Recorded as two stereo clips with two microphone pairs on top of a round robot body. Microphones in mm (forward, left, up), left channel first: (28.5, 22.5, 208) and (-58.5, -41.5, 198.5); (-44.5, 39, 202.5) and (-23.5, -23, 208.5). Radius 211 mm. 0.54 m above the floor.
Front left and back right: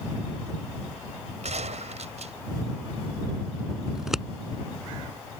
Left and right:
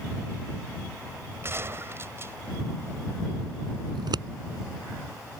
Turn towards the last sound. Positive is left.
turn(degrees=-55)